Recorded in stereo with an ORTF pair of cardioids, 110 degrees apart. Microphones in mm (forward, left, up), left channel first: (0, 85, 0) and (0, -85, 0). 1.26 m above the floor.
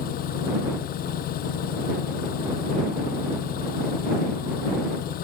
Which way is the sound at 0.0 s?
65° left.